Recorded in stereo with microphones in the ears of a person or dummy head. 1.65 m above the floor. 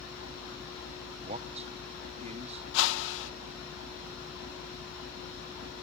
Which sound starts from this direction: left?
A whoosh, at 2.7 s.